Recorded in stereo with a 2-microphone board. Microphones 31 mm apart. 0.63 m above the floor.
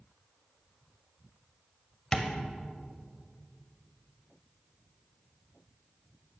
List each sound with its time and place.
2.1 s tapping: 15° left (ahead or behind), 1.5 m